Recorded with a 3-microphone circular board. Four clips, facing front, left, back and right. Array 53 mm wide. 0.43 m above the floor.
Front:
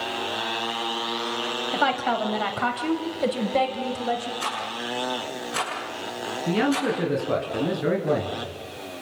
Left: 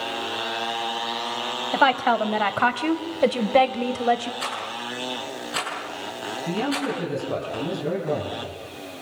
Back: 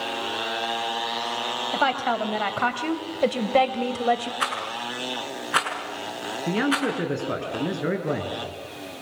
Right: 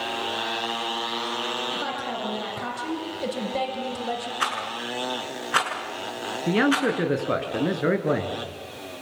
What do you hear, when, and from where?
1.7 s a woman speaking: 90° left, 2.5 m; by 4.3 s 125° left, 2.5 m
4.4 s a rattle: 135° right, 6.5 m
6.5 s a man speaking: 100° right, 5 m